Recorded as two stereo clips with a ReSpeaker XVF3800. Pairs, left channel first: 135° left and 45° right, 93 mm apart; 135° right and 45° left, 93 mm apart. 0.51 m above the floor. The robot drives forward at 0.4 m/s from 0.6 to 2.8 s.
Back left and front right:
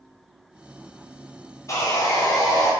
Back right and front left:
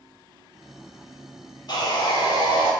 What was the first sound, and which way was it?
Sawing, 175° right.